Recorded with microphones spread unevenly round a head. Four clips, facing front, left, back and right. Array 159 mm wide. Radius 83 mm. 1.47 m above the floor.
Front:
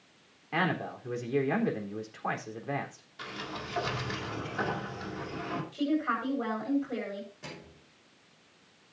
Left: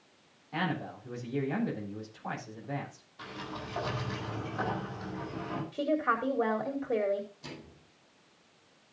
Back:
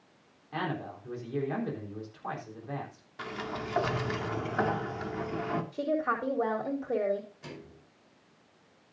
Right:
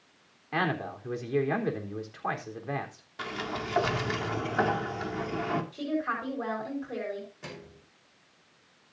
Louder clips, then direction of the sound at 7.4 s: Right 2 dB, back 1 dB; 70° right.